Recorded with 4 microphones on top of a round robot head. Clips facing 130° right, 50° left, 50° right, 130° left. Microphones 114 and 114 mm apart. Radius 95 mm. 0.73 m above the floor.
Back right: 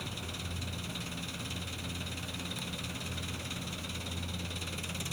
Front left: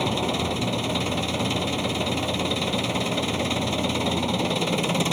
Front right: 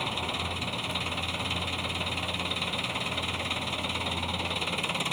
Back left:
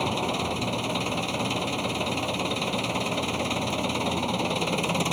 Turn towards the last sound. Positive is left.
turn(degrees=75)